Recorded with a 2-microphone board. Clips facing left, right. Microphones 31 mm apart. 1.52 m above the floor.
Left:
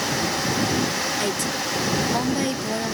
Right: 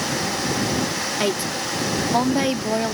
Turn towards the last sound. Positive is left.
turn(degrees=-25)  # may be behind; listen again after turning